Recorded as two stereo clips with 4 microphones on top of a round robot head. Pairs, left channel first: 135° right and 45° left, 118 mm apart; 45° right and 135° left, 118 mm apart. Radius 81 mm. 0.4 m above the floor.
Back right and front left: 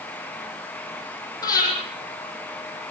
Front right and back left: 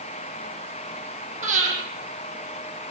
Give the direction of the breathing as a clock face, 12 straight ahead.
7 o'clock.